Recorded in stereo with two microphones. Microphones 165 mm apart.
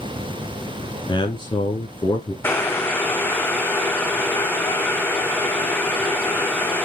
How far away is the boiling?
About 1.4 m.